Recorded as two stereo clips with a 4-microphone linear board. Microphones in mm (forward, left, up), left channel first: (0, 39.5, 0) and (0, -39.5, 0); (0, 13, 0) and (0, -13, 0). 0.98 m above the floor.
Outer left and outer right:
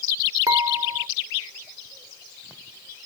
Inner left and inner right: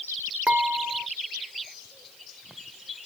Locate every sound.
0.5 s dishes clattering: 55° right (ahead or behind)